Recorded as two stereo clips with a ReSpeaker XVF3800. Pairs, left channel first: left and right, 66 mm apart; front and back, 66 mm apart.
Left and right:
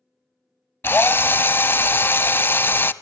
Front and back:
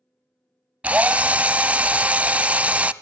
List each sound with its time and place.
0.8 s a drill: 125° left, 0.5 m